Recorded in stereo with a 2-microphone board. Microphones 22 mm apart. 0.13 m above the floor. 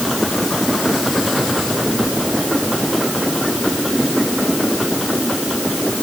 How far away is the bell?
I don't hear a bell.